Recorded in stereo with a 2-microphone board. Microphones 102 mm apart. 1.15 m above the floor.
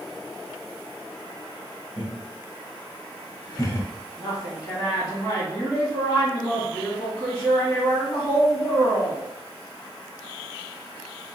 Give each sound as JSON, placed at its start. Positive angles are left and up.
{"t": 2.0, "sound": "laughter", "side_deg": 55, "distance_m": 1.3}
{"t": 4.2, "sound": "a woman speaking", "side_deg": 45, "distance_m": 1.7}